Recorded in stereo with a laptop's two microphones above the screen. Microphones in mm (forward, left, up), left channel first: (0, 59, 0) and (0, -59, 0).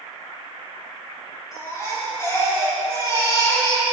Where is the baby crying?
30° left (ahead or behind), 5 m.